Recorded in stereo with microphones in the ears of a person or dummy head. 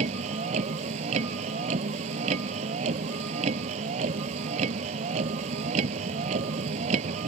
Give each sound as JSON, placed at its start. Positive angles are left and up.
{"t": 0.0, "sound": "a vehicle", "side_deg": -35}